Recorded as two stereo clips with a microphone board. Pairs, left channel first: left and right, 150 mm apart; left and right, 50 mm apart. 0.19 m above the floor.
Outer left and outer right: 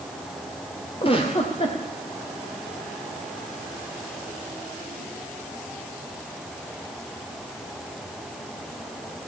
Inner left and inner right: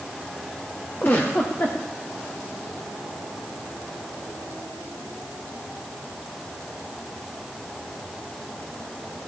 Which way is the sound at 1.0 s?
40° left (ahead or behind).